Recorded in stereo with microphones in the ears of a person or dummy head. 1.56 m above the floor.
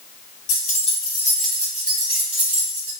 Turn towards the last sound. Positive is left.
turn(degrees=-45)  # may be behind; listen again after turning